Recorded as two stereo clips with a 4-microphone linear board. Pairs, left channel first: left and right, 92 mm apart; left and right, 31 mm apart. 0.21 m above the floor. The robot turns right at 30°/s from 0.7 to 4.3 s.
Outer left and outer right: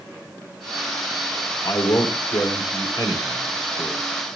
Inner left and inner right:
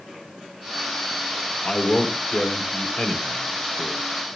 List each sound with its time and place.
1.6 s a man speaking: 45° left (ahead or behind), 2.5 m; by 4.0 s 25° left (ahead or behind), 2.5 m